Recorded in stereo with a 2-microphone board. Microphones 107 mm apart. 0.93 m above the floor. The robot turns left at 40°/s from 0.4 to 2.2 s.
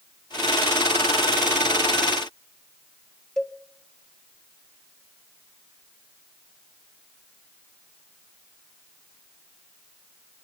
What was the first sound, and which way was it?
A cowbell, 5° left (ahead or behind).